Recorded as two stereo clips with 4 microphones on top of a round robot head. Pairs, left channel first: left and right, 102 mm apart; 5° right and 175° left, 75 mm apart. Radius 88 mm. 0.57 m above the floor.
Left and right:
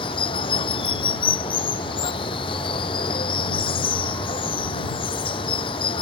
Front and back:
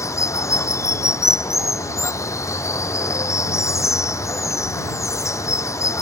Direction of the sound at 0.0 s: 45° left.